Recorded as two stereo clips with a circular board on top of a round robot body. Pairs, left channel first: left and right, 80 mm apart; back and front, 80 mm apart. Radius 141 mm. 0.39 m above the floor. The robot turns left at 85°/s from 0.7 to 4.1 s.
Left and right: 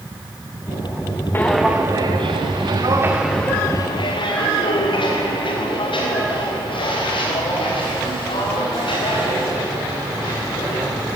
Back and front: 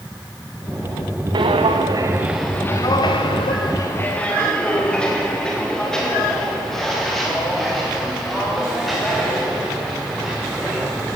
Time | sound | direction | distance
1.3 | footsteps | 25° left | 2 m